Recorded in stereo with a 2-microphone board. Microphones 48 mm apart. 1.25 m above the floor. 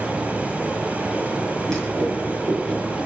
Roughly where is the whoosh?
Centre.